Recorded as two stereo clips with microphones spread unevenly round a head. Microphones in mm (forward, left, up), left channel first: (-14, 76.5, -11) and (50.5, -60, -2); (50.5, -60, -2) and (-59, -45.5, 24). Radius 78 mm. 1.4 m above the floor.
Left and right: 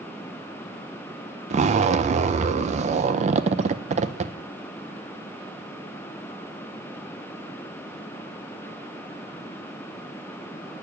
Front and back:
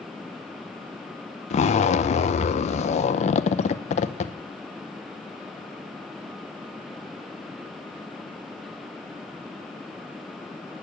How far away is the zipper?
About 0.6 m.